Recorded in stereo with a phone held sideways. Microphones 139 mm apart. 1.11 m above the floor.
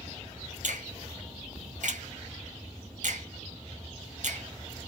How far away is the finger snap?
About 1.3 m.